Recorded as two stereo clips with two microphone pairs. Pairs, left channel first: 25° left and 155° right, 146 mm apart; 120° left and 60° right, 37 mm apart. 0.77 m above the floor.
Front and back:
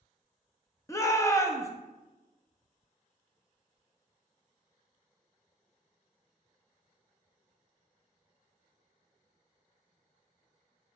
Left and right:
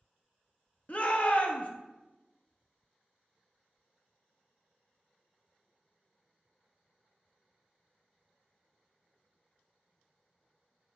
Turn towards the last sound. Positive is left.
turn(degrees=90)